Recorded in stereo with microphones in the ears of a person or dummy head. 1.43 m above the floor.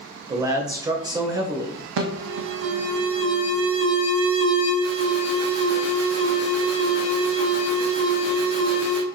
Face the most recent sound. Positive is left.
turn(degrees=-75)  # may be behind; listen again after turning